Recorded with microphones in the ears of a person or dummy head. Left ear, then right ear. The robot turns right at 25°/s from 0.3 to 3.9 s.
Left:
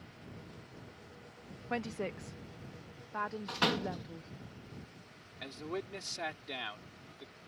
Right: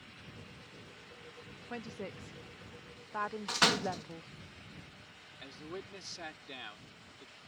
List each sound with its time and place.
1.7 s a woman speaking: 160° left; by 4.3 s 145° right
3.5 s a door slam: 40° right (ahead or behind); by 4.0 s 30° right (ahead or behind)
5.4 s a man speaking: 20° left (ahead or behind)